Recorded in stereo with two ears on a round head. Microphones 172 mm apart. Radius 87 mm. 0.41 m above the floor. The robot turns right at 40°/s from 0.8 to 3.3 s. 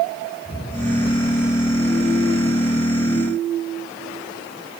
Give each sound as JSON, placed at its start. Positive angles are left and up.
{"t": 0.5, "sound": "an explosion", "azimuth_deg": 145, "distance_m": 3.5}